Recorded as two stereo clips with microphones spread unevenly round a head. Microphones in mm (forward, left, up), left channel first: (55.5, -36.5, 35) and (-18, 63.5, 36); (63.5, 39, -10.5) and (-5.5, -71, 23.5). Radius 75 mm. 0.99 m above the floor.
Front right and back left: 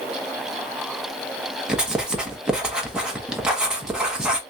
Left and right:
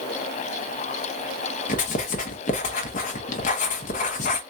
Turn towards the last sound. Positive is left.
turn(degrees=40)